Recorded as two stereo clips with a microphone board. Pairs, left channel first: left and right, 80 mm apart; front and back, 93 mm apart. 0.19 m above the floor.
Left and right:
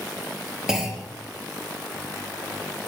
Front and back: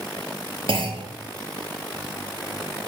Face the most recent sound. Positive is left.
turn(degrees=-170)